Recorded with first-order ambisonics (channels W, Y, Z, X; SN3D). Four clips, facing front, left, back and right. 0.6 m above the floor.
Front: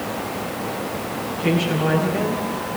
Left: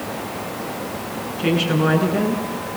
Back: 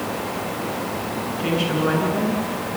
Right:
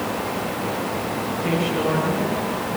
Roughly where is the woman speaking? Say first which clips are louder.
Left 5 dB, front 1 dB; left.